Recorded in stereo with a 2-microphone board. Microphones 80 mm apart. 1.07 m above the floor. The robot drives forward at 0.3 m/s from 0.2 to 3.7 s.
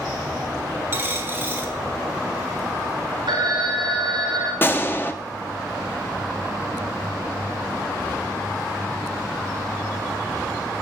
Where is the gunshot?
25° left (ahead or behind), 0.7 m.